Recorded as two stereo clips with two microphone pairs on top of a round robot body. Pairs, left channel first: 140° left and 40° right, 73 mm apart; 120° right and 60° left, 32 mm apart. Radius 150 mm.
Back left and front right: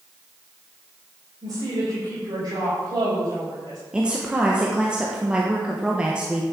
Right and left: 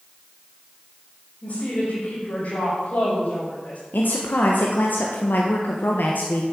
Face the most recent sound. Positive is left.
turn(degrees=-120)